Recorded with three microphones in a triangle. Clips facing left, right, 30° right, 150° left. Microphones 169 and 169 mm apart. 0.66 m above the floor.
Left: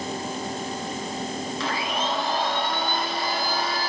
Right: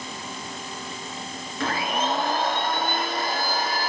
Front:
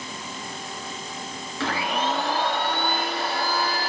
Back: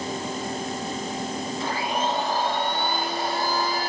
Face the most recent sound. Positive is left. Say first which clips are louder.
# right 4 dB, front 2 dB
turn(degrees=-50)